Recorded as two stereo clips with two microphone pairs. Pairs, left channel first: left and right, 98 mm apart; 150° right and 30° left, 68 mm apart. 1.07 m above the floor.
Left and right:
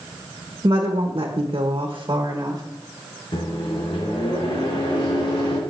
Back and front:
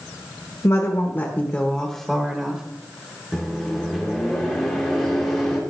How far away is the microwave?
About 2.5 m.